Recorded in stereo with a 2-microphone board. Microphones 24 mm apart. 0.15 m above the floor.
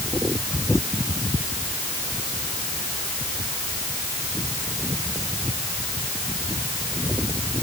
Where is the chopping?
No chopping in this recording.